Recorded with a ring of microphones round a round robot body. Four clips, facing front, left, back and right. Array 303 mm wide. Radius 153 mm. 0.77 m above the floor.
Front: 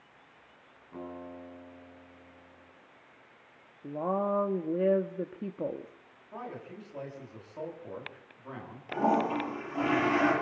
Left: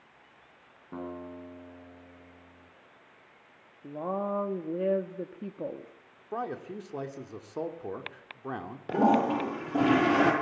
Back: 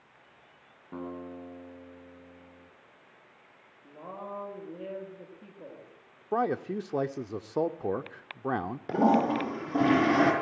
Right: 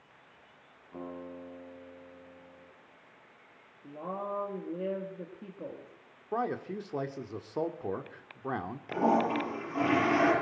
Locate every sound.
0.9 s a guitar: 130° left, 7.5 m
3.8 s a woman speaking: 25° left, 1.8 m
6.3 s a man speaking: 175° right, 1.8 m
8.9 s a toilet flushing: 140° left, 8.5 m